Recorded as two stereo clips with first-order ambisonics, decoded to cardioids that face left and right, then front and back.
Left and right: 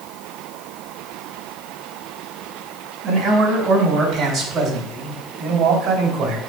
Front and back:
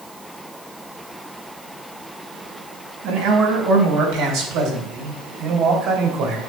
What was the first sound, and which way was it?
A man speaking, 160° right.